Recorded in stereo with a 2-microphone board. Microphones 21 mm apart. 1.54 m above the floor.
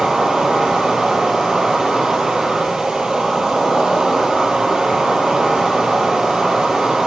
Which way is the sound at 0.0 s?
60° right (ahead or behind).